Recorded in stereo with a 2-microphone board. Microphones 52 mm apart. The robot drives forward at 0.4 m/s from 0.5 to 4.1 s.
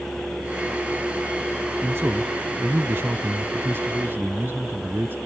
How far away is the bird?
I don't hear a bird.